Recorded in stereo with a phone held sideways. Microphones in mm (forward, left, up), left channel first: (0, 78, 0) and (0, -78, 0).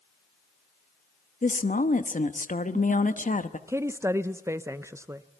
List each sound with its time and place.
1.4 s a woman speaking: 55° left (ahead or behind), 1.1 m
3.7 s a woman speaking: 20° right (ahead or behind), 0.5 m